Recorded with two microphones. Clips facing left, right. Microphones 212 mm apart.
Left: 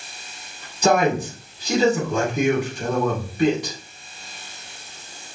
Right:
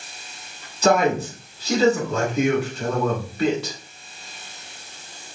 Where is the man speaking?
15° left (ahead or behind), 1.3 m.